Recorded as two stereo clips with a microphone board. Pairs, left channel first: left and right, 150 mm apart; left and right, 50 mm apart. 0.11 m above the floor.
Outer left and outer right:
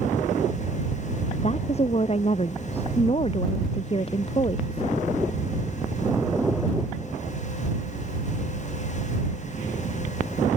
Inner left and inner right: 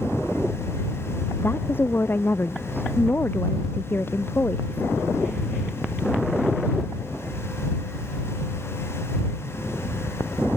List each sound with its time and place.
1.4 s a woman speaking: 45° left (ahead or behind); by 5.0 s 35° left (ahead or behind)